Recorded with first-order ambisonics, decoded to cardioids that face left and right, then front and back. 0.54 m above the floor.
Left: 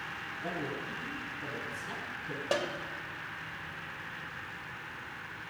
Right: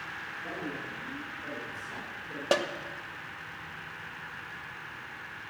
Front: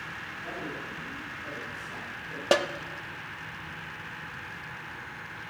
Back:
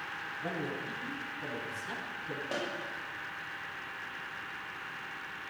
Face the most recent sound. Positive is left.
turn(degrees=-20)